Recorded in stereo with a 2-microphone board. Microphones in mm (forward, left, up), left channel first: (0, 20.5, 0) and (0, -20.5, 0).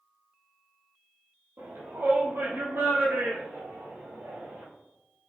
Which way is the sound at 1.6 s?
55° right (ahead or behind).